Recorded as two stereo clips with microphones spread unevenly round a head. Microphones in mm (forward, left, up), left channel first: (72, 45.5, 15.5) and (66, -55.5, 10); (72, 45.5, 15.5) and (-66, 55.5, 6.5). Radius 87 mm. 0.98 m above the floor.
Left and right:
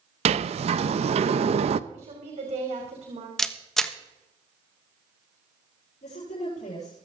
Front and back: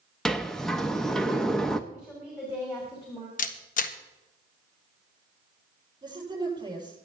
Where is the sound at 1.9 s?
80° right, 3 m.